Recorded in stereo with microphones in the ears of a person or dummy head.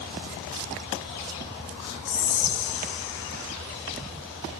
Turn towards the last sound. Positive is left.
turn(degrees=65)  # may be behind; listen again after turning